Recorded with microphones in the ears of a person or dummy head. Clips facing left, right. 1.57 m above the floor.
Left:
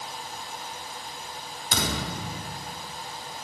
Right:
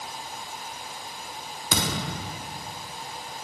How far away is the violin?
I don't hear a violin.